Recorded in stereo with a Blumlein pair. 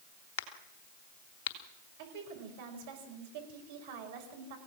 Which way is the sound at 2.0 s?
55° right.